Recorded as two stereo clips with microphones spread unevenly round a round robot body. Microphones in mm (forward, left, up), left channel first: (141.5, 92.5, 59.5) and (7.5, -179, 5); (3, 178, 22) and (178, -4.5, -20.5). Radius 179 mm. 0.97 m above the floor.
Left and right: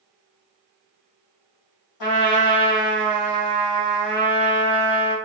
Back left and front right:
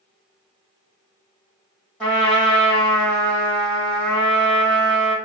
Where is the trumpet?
45° left, 1.5 m.